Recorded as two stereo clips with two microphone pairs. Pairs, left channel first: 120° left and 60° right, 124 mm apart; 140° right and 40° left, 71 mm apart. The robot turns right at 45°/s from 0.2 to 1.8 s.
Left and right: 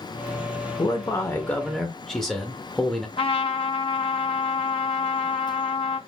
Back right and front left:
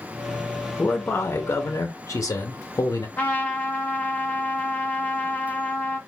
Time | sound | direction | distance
0.8 | a man speaking | 160° left | 0.8 m
3.2 | a trumpet | 160° left | 1.0 m